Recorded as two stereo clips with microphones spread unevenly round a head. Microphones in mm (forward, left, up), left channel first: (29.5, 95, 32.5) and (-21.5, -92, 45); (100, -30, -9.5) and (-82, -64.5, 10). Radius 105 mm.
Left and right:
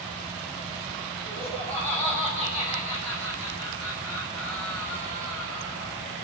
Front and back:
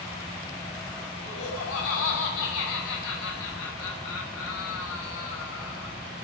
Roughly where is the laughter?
Ahead.